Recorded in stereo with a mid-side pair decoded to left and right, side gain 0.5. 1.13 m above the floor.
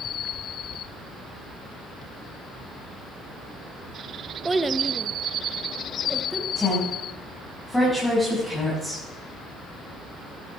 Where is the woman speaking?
10° left, 7 m.